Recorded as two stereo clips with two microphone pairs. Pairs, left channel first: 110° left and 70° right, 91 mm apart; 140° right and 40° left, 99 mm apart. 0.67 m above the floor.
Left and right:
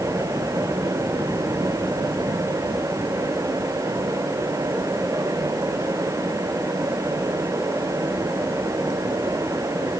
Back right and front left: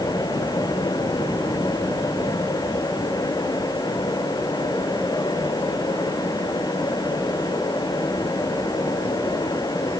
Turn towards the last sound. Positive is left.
No sound to turn to.